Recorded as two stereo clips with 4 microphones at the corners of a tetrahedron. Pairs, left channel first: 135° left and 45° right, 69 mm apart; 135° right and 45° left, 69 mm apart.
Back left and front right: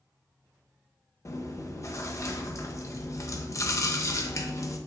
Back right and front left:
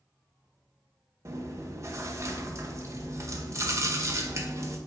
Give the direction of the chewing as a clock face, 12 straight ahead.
9 o'clock.